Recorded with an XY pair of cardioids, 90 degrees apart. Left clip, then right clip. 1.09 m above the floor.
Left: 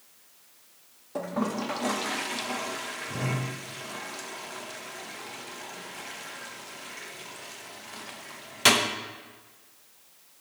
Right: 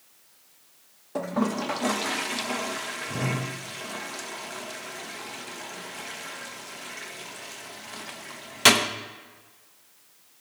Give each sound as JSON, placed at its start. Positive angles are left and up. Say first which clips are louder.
{"t": 1.1, "sound": "a toilet flushing", "louder": "right 3 dB", "azimuth_deg": -30, "distance_m": 0.5}